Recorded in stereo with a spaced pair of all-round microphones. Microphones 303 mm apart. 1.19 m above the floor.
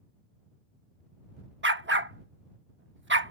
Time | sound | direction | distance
1.6 | a dog barking | 35° right (ahead or behind) | ?